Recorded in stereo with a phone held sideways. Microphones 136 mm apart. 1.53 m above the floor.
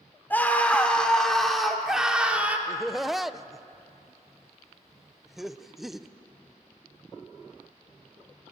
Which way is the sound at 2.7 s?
Centre (ahead or behind).